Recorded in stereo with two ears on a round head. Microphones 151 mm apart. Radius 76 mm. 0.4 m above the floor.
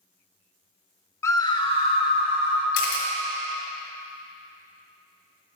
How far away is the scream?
About 0.8 m.